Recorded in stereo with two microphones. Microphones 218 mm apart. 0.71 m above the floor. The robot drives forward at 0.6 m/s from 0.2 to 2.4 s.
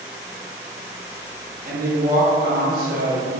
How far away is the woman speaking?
About 0.8 m.